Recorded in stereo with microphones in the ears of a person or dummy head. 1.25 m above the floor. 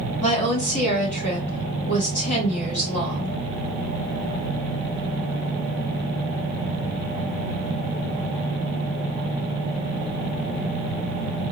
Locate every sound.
0.2 s a woman speaking: 35° left (ahead or behind), 1.6 m